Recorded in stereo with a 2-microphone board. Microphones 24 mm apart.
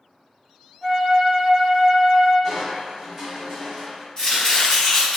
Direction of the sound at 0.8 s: 5° right (ahead or behind).